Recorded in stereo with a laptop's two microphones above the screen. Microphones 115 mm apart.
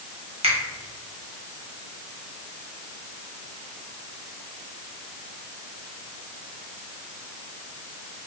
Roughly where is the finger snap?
Right.